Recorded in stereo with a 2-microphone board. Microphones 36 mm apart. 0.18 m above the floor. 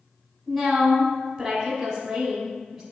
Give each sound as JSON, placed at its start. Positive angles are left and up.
{"t": 0.5, "sound": "a woman speaking", "side_deg": -5, "distance_m": 1.0}